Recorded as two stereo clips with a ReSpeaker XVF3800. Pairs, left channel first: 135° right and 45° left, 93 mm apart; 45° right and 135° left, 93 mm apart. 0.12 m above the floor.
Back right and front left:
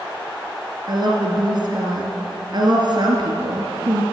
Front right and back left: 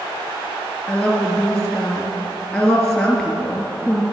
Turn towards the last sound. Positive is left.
turn(degrees=40)